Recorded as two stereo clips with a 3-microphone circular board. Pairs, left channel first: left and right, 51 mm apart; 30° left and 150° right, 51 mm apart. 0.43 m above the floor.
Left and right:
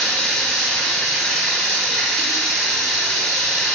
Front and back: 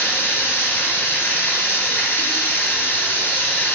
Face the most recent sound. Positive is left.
turn(degrees=5)